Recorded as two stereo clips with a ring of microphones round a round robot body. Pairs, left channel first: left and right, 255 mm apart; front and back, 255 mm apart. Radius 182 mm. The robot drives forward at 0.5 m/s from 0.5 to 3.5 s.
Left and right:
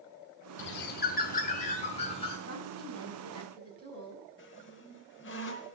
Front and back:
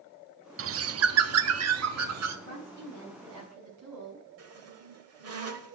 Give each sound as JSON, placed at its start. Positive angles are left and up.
{"t": 0.6, "sound": "a bird", "azimuth_deg": 140, "distance_m": 0.6}
{"t": 2.5, "sound": "a woman speaking", "azimuth_deg": -140, "distance_m": 5.5}
{"t": 4.4, "sound": "a squeak", "azimuth_deg": 150, "distance_m": 1.4}